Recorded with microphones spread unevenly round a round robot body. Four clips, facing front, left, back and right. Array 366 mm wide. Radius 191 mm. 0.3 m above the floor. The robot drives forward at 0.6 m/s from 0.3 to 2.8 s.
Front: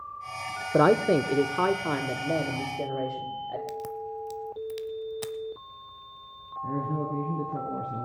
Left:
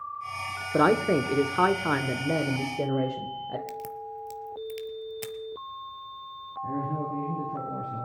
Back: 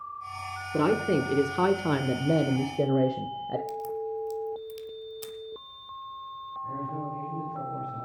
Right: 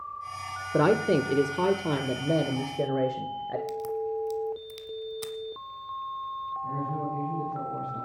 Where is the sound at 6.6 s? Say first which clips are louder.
Left 3 dB, front 4 dB; 15° left, 4 m.